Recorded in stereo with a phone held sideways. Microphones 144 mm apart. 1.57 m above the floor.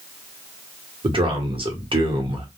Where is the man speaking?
40° right (ahead or behind), 0.9 m.